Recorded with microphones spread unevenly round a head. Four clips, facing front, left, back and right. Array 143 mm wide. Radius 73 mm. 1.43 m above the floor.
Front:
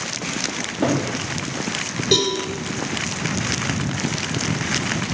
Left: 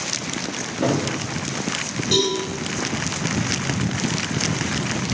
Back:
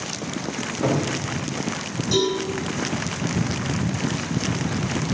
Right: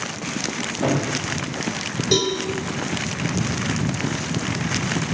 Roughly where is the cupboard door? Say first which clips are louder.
Left 1 dB, front 2 dB; ahead.